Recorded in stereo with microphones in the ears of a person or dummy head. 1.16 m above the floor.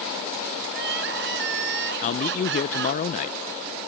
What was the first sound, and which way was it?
Crying, 70° right (ahead or behind).